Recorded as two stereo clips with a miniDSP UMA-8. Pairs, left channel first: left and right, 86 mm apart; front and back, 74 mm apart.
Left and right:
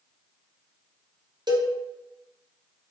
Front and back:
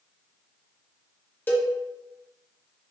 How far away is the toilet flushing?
No toilet flushing in this recording.